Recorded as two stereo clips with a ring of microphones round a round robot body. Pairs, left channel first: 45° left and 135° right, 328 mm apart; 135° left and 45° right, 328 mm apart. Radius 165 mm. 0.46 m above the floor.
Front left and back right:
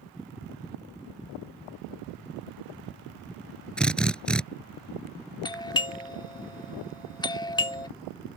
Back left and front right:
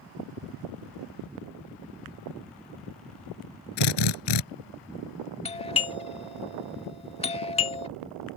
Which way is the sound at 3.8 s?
130° left.